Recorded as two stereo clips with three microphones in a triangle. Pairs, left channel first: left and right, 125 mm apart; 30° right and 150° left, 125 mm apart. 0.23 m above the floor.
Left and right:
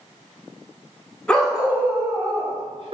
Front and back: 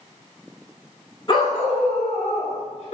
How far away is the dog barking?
About 0.9 m.